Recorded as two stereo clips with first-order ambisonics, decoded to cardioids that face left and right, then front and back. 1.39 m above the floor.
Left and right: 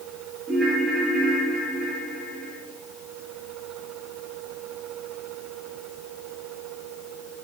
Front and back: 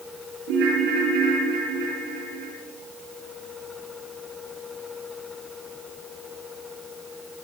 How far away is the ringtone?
About 8.5 m.